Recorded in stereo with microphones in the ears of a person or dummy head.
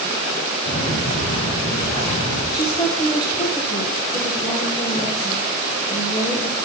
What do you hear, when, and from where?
0.7 s footsteps: 70° left (ahead or behind), 3.5 m
2.5 s a woman speaking: 20° left (ahead or behind), 0.8 m